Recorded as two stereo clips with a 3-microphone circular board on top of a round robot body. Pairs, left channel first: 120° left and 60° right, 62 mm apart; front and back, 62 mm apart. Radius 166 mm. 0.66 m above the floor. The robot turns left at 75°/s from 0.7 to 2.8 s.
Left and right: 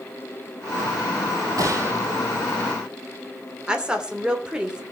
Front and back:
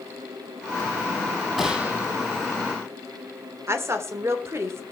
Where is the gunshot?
90° right, 5 m; by 2.1 s 125° right, 5 m.